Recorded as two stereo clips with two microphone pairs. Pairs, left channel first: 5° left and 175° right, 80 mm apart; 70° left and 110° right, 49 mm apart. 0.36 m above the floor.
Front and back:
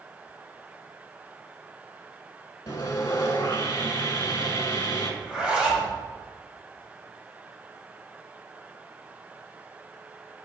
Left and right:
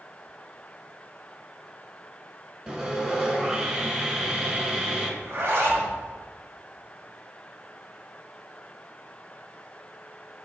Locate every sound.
2.7 s sawing: 35° right, 0.8 m
5.2 s a zipper: 95° right, 1.0 m